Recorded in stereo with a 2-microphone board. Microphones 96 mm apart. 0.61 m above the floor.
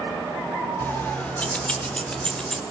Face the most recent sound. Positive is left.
turn(degrees=5)  # may be behind; listen again after turning